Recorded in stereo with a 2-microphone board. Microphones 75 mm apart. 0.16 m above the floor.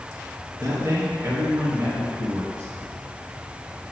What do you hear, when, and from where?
0.6 s a man speaking: 35° right (ahead or behind), 2.5 m; by 2.7 s 30° right (ahead or behind), 3.5 m